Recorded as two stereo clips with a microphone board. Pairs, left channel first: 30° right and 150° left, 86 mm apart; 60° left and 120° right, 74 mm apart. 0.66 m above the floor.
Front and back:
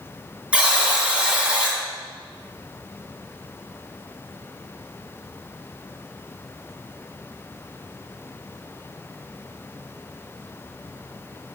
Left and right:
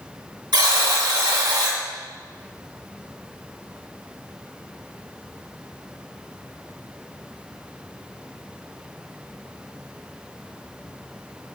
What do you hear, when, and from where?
0.5 s a buzzer: 135° right, 2 m